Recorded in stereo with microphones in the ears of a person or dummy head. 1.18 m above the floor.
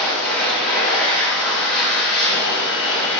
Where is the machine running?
Centre (ahead or behind), 0.9 m.